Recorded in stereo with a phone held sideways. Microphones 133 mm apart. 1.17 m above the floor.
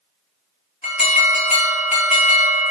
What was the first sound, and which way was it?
An alarm, 60° left (ahead or behind).